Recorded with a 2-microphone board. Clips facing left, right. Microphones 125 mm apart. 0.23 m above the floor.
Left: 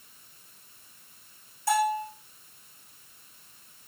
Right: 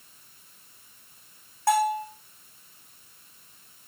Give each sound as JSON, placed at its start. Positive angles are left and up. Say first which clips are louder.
{"t": 1.7, "sound": "a bell", "louder": "right 2 dB", "side_deg": -65, "distance_m": 3.5}